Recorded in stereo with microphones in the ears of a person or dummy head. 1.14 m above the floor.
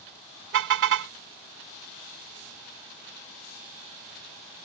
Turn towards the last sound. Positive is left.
turn(degrees=-65)  # may be behind; listen again after turning